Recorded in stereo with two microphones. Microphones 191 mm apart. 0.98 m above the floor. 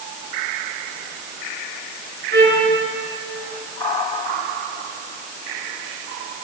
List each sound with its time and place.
2.3 s a trumpet: 60° right (ahead or behind), 9.5 m